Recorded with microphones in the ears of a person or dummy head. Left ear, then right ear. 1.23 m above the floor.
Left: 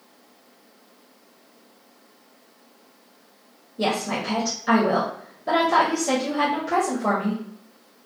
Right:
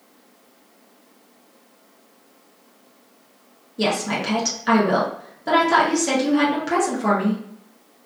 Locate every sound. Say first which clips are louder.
3.8 s a woman speaking: right 2 dB; 30° right (ahead or behind), 0.6 m